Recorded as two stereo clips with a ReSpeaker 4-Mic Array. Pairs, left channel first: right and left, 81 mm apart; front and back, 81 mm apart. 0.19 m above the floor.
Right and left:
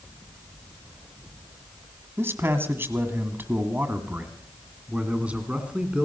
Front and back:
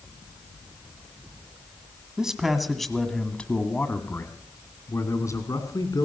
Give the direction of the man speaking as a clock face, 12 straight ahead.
8 o'clock.